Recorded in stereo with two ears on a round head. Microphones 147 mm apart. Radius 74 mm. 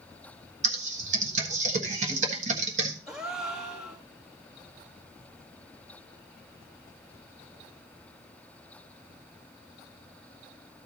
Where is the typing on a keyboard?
45° right (ahead or behind), 1.4 m.